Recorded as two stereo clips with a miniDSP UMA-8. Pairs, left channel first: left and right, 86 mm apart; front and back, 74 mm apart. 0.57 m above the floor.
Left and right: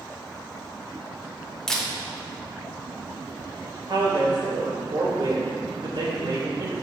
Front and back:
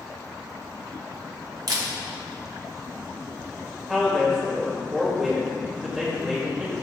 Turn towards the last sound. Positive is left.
turn(degrees=-95)